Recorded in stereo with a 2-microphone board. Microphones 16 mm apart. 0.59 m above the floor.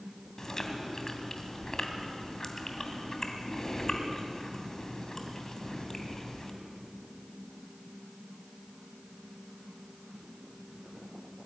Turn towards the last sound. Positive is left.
turn(degrees=35)  # may be behind; listen again after turning